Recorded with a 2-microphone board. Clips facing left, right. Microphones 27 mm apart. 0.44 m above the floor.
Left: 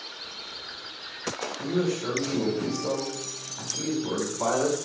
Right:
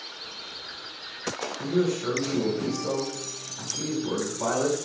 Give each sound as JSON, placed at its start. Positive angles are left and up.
{"t": 1.6, "sound": "a man speaking", "side_deg": 40, "distance_m": 1.6}